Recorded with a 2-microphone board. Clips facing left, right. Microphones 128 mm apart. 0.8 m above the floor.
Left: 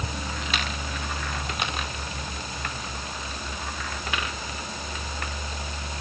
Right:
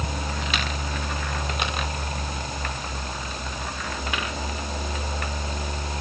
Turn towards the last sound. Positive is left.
No sound to turn to.